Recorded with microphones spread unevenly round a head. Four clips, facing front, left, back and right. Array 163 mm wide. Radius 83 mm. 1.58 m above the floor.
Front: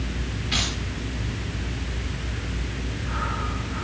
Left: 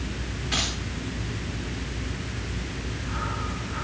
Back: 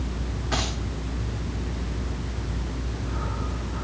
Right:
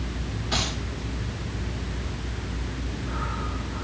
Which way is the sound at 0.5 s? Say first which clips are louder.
Right 2 dB, back 3 dB; 150° right.